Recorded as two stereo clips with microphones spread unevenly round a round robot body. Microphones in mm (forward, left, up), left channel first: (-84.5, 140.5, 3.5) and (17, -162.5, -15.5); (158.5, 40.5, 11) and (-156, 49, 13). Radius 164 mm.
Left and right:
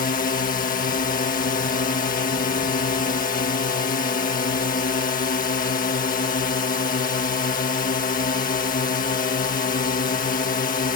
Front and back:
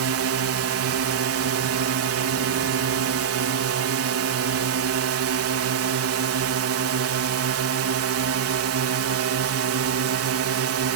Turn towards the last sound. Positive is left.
turn(degrees=165)